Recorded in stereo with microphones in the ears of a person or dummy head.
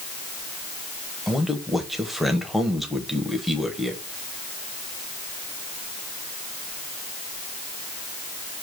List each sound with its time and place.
1.3 s a man speaking: centre (ahead or behind), 0.8 m